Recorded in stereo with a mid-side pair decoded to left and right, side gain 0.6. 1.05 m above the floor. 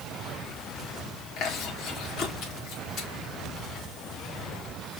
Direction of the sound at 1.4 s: 65° left.